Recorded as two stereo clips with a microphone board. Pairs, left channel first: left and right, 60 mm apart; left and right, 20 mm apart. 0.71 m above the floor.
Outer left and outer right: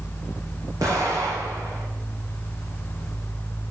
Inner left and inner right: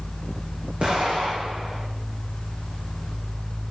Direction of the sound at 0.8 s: 70° right (ahead or behind).